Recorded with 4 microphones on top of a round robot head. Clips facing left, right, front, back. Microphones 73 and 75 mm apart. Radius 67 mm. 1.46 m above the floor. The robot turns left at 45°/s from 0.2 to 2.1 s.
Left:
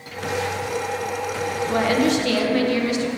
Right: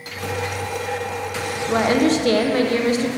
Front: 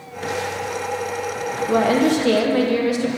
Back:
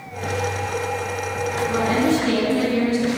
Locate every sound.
1.7 s a woman speaking: 20° right, 1.1 m; by 3.1 s 35° right, 1.1 m